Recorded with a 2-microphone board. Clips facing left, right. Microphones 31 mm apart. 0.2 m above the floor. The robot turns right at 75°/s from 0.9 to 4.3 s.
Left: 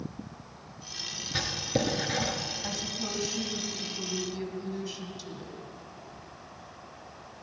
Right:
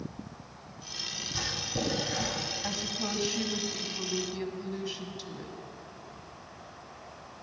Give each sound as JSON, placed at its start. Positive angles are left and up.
{"t": 1.3, "sound": "writing", "side_deg": 50, "distance_m": 1.7}
{"t": 2.6, "sound": "a woman speaking", "azimuth_deg": -160, "distance_m": 1.1}